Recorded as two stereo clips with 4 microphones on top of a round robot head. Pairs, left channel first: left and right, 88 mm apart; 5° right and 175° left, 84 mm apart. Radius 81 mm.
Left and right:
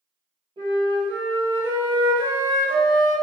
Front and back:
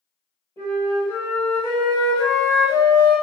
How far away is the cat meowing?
No cat meowing in this recording.